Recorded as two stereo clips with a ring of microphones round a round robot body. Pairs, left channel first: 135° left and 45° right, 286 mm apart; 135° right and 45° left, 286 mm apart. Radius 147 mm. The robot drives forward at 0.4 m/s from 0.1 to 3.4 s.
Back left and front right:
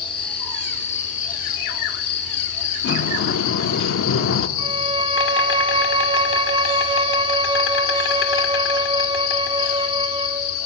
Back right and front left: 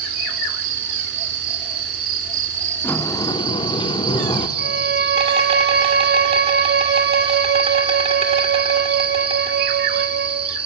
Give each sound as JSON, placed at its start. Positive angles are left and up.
{"t": 0.0, "sound": "an insect", "azimuth_deg": 65, "distance_m": 2.5}
{"t": 2.8, "sound": "a sliding door", "azimuth_deg": 145, "distance_m": 0.7}
{"t": 4.6, "sound": "a violin", "azimuth_deg": 15, "distance_m": 1.0}